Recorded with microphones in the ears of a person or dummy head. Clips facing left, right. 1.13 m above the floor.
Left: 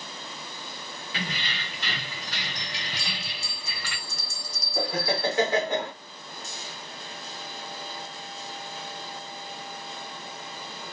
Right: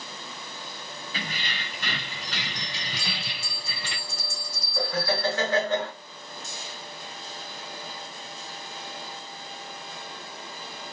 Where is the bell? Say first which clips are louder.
Right 1 dB; 25° left (ahead or behind), 0.7 m.